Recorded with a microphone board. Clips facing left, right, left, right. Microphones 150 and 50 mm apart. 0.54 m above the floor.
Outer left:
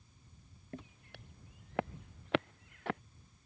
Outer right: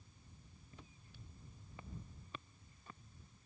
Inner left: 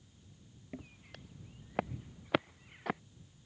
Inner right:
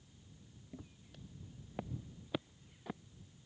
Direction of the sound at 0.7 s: 70° left (ahead or behind).